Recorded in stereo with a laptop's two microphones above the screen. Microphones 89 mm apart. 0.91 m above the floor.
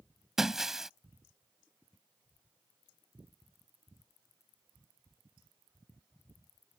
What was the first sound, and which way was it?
Breaking glass, 5° right (ahead or behind).